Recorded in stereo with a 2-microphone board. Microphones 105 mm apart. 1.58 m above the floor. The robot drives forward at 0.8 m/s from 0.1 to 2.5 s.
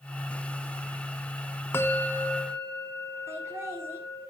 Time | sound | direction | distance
1.7 | a bell | 20° left (ahead or behind) | 0.7 m
3.3 | laughter | 25° right (ahead or behind) | 4 m